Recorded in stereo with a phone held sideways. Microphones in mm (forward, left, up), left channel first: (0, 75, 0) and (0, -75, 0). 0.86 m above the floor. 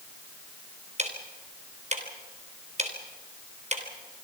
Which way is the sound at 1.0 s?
45° right (ahead or behind).